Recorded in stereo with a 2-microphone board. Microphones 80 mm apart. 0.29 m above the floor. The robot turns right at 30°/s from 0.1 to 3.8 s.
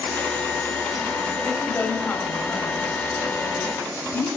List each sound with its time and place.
1.4 s a woman speaking: 30° left, 1.0 m; by 4.3 s 105° left, 1.0 m